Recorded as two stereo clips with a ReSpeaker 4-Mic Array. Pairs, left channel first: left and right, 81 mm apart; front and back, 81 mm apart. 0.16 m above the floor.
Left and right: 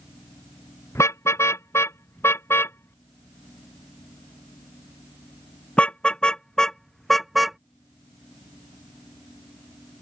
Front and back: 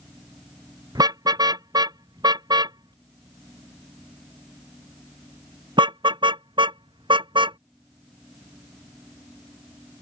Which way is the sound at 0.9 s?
145° left.